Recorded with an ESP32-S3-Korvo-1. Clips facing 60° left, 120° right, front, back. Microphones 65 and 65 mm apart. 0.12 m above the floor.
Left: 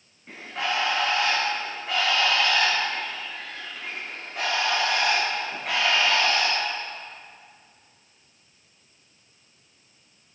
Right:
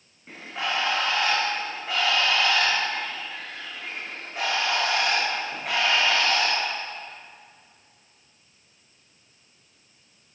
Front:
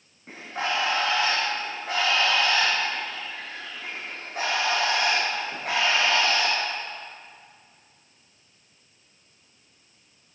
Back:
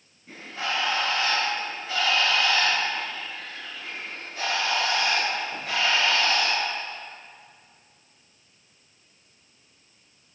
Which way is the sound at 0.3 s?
30° right.